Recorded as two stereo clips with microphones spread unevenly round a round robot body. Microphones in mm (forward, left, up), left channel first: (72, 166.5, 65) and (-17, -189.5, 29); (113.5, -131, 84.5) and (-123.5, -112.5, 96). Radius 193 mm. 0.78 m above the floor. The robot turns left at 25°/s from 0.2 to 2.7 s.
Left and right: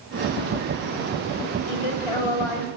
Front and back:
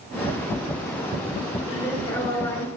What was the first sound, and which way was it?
A woman speaking, 85° left.